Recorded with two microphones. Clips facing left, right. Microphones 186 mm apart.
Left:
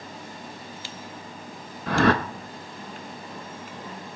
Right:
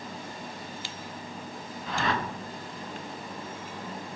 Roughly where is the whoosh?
Left.